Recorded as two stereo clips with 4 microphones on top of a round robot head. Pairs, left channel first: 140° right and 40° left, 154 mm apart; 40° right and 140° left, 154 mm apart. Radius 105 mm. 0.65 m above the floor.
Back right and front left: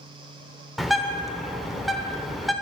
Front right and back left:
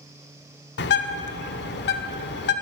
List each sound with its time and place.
0.8 s a bird: 50° right, 0.9 m